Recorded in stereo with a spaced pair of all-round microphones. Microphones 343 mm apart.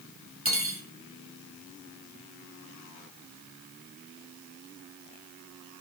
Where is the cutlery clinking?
35° right (ahead or behind), 2 m.